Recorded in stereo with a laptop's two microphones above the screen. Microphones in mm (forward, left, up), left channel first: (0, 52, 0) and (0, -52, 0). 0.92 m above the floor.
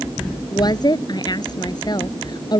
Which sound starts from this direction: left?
A woman speaking, at 0.5 s.